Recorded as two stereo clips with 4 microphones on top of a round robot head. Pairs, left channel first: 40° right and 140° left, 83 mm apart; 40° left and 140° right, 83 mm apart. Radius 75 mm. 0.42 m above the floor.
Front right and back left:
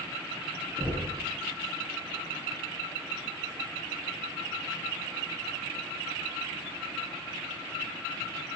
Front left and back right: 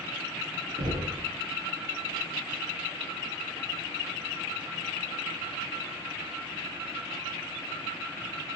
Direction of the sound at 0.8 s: 140° right.